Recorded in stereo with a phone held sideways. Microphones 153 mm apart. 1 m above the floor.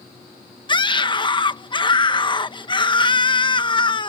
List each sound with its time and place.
0.7 s a scream: 30° left (ahead or behind)